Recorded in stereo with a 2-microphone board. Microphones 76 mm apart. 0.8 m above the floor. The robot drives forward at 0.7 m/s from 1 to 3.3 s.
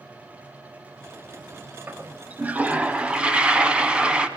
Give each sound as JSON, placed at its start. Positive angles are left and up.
{"t": 1.9, "sound": "a toilet flushing", "side_deg": -25, "distance_m": 1.0}